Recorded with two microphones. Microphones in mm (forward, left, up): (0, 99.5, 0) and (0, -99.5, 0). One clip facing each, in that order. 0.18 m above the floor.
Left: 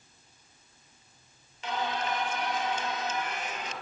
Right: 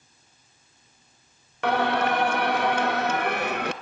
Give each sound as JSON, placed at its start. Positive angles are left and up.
{"t": 1.6, "sound": "singing", "side_deg": -65, "distance_m": 0.9}